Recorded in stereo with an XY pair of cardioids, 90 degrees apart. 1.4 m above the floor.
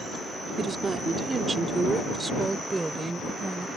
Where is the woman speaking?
40° right; by 3.7 s 15° right.